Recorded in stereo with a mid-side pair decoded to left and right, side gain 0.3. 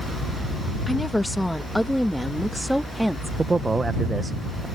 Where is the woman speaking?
10° left; by 3.3 s 10° right.